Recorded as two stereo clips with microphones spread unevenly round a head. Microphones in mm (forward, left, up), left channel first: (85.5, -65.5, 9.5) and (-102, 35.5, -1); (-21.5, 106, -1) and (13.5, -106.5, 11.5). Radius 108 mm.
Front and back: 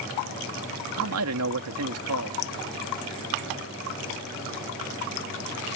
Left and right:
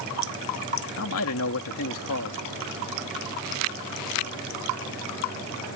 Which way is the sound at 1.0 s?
125° left.